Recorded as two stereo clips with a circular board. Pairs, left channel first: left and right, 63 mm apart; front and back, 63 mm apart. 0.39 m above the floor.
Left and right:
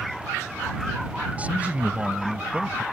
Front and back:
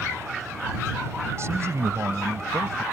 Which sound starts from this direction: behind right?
A man speaking, at 1.4 s.